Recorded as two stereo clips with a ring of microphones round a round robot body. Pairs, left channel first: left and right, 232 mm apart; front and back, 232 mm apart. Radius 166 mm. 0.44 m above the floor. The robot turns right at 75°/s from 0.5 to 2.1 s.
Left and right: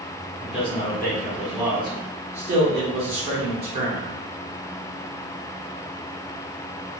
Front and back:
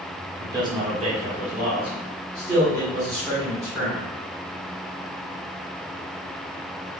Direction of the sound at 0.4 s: 120° left.